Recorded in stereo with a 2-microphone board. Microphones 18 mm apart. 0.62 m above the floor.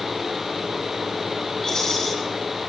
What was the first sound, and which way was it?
A rattle, 30° left (ahead or behind).